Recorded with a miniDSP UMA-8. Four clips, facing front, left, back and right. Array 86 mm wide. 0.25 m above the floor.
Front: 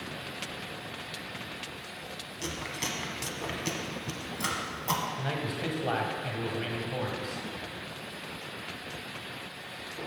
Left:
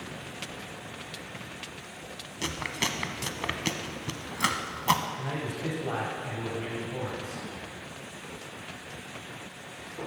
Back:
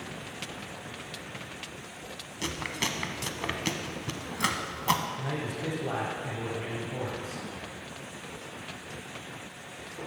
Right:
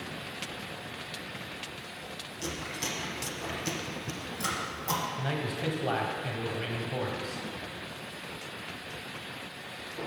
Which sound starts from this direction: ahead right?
A man speaking, at 5.2 s.